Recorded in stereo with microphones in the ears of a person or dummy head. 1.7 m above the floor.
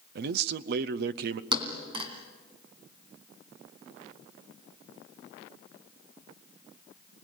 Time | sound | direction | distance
0.1 | a man speaking | 60° right (ahead or behind) | 0.6 m
1.5 | a thud | 35° right (ahead or behind) | 3 m